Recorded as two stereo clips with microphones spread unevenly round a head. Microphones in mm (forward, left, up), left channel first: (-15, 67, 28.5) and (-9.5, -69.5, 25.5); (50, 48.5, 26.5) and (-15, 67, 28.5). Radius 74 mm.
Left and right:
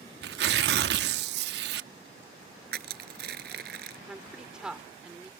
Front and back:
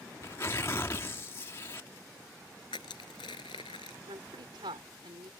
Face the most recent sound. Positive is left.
turn(degrees=-175)